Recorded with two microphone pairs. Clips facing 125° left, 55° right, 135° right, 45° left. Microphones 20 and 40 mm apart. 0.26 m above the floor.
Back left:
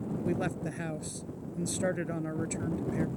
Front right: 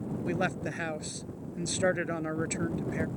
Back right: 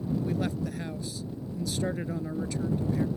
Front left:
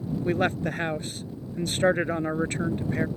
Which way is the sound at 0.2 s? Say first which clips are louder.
Front right 3 dB, front left 6 dB; 10° left.